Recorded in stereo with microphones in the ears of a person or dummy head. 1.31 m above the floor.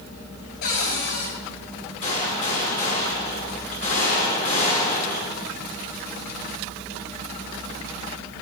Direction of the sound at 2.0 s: 45° left (ahead or behind).